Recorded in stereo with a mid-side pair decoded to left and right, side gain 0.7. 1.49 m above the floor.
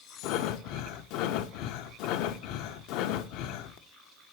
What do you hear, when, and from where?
0.2 s breathing: 60° left, 0.6 m